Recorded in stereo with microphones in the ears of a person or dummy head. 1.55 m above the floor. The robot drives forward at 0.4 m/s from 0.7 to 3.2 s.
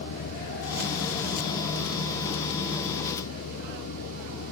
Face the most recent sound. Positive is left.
turn(degrees=90)